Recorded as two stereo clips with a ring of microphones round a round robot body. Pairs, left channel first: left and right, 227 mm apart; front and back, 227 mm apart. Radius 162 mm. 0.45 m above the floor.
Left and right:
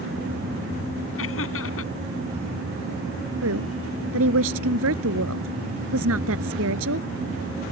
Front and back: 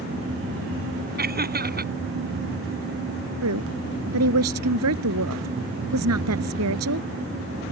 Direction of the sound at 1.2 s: 135° left.